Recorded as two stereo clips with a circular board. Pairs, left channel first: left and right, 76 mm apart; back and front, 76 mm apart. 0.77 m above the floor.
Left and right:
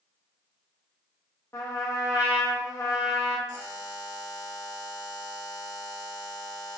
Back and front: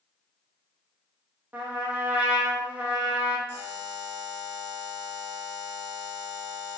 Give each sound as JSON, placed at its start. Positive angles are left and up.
{"t": 1.5, "sound": "a trumpet", "azimuth_deg": 60, "distance_m": 0.8}
{"t": 3.5, "sound": "a buzzer", "azimuth_deg": 55, "distance_m": 1.4}